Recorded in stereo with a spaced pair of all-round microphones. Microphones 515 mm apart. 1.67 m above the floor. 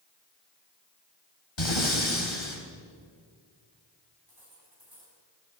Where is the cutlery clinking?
50° right (ahead or behind), 7.5 m.